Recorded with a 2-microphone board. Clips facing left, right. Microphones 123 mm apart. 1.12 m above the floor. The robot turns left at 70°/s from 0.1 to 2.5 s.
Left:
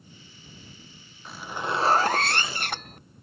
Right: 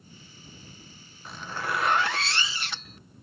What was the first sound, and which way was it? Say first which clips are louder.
A zipper: left 2 dB; straight behind.